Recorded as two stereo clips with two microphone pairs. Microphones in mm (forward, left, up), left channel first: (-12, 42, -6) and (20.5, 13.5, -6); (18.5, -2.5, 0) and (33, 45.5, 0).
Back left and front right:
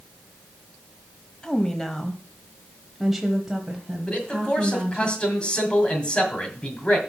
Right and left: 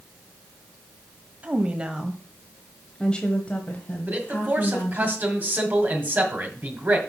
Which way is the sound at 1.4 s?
80° left.